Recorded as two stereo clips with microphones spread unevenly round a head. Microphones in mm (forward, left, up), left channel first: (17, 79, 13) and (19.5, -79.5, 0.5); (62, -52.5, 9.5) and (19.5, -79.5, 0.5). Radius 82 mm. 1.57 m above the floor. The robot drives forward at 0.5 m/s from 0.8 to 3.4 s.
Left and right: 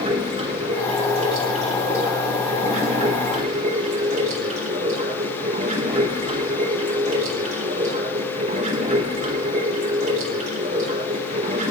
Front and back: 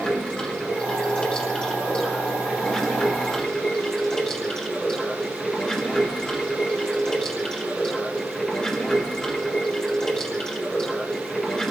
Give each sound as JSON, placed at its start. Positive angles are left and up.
{"t": 0.0, "sound": "running water", "azimuth_deg": -35, "distance_m": 6.0}